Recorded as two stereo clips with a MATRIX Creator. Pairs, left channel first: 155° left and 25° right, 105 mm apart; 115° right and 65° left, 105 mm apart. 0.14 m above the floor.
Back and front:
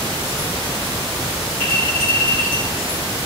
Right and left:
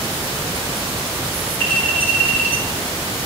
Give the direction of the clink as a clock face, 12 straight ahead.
1 o'clock.